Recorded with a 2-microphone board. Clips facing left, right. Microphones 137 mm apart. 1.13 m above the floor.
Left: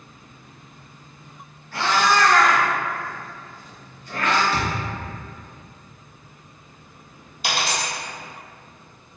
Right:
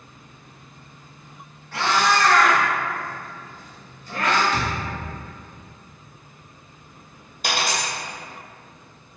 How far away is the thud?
About 0.7 m.